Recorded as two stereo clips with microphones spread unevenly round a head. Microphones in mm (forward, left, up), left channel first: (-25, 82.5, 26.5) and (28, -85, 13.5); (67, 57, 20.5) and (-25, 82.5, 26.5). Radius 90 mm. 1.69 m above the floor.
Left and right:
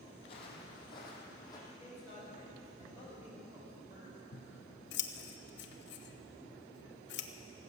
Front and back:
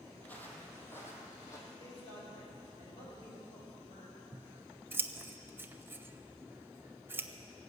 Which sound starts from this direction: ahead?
A man speaking, at 1.7 s.